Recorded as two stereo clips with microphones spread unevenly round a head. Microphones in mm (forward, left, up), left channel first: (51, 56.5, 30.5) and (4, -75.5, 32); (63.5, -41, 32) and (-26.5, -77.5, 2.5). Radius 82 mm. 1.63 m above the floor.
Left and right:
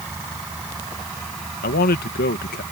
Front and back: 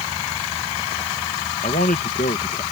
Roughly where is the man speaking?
Ahead left.